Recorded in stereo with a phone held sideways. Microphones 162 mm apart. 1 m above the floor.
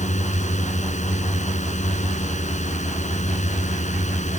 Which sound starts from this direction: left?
A drone, at 0.0 s.